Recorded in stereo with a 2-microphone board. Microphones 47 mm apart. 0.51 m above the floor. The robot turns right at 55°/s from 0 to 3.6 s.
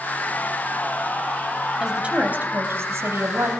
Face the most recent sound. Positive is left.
turn(degrees=-70)